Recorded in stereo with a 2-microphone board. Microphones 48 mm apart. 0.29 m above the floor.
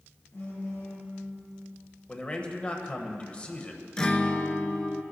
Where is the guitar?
20° left (ahead or behind), 0.6 m.